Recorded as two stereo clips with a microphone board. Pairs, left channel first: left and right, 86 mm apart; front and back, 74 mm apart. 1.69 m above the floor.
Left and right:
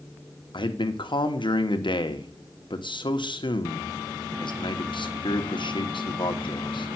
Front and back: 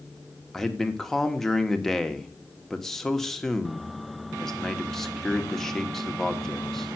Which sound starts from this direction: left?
A man speaking, at 0.5 s.